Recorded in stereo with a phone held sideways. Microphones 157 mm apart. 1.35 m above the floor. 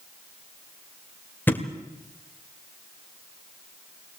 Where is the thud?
10° left (ahead or behind), 1.6 m.